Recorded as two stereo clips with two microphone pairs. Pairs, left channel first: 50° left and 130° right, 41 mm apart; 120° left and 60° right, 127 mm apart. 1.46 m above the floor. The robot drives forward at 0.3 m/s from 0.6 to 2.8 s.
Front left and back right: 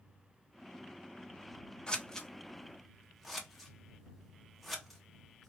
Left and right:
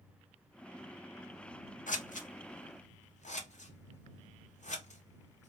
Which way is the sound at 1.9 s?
120° left.